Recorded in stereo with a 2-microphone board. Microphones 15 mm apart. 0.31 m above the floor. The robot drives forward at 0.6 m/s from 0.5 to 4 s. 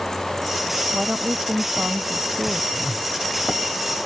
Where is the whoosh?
30° left (ahead or behind).